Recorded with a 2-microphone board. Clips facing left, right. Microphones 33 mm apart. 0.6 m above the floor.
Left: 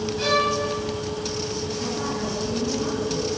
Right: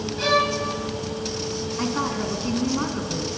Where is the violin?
10° right (ahead or behind), 3.5 m.